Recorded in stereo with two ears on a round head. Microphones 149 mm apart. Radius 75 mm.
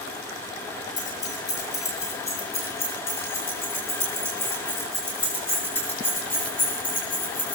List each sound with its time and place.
1.0 s keys jangling: 25° left (ahead or behind), 5.5 m; by 7.5 s 10° left (ahead or behind), 9.5 m